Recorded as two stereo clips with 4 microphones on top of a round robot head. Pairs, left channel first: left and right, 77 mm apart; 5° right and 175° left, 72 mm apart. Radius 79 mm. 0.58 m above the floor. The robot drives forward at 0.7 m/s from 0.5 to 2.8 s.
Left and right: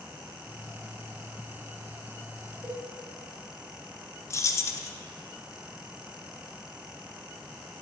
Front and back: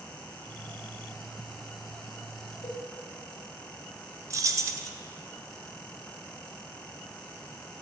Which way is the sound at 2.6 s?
40° right.